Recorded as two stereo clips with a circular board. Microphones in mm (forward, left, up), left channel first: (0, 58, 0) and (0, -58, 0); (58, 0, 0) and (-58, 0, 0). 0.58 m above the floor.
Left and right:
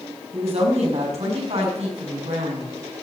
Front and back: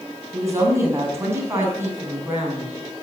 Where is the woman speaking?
115° right, 5 m; by 2.8 s 110° right, 6.5 m.